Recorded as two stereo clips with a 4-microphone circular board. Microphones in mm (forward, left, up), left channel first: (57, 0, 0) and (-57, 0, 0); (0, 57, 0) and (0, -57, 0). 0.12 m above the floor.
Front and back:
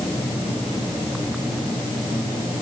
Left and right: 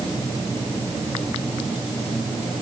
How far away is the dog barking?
I don't hear a dog barking.